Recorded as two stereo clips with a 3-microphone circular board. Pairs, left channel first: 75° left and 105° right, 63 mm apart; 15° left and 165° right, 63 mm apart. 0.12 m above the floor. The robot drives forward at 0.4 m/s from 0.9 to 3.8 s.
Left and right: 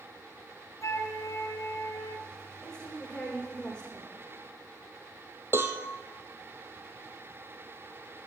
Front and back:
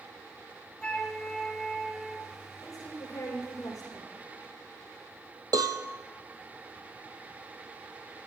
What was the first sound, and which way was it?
A flute, 85° left.